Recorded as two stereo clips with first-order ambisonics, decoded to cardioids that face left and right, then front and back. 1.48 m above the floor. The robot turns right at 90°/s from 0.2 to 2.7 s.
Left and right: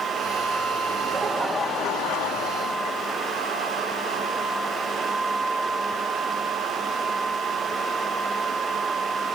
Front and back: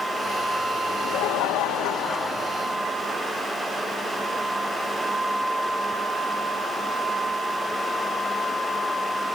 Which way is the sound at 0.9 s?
50° right.